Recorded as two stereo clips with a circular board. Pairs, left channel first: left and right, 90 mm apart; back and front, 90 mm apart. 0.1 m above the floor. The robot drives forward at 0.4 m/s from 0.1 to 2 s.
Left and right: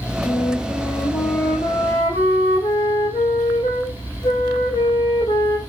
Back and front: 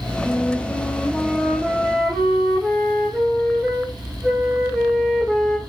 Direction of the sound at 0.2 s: 75° left.